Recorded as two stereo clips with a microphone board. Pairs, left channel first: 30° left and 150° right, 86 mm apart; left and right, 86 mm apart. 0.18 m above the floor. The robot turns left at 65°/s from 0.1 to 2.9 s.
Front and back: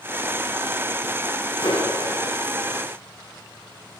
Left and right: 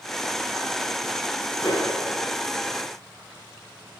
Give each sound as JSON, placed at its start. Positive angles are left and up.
{"t": 1.6, "sound": "a clap", "azimuth_deg": 45, "distance_m": 9.0}